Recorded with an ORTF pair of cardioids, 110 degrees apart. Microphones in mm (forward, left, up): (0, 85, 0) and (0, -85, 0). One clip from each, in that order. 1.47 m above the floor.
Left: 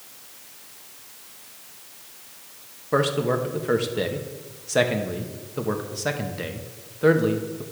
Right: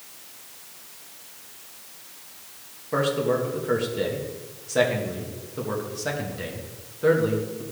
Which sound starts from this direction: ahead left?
A man speaking, at 2.9 s.